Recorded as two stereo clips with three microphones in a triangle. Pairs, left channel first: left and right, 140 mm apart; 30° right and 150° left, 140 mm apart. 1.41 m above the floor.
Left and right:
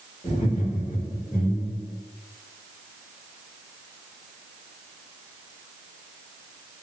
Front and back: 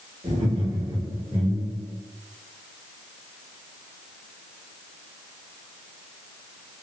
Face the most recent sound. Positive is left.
turn(degrees=65)